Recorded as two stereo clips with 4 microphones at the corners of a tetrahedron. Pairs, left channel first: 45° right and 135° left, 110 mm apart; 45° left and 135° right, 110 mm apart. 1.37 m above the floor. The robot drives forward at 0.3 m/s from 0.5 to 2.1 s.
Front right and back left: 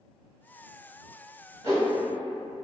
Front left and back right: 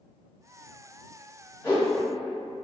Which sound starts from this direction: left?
A whoosh, at 1.6 s.